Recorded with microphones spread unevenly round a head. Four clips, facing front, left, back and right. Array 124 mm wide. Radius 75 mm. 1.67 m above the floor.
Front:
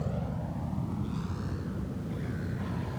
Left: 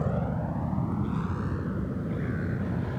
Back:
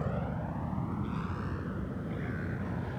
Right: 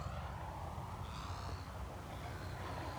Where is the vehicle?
105° left; by 3.0 s 90° left.